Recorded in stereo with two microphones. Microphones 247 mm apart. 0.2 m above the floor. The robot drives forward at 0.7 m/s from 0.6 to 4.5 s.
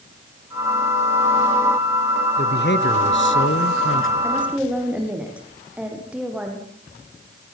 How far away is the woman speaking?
About 9.5 m.